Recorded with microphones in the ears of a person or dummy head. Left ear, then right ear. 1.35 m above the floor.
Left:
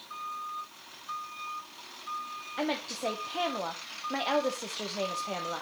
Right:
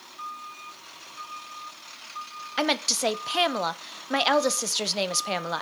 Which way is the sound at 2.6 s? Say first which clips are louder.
Right 8 dB; 70° right (ahead or behind).